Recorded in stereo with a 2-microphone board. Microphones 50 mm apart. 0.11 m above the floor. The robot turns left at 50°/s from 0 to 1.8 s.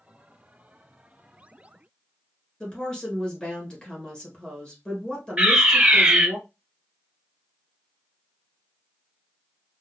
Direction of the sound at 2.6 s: 20° left (ahead or behind).